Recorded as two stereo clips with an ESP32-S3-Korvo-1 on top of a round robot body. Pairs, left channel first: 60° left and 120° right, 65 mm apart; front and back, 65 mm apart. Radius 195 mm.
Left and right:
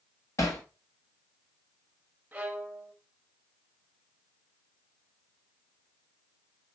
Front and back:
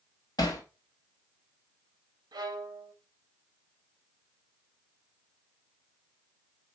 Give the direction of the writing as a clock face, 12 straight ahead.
I don't hear writing.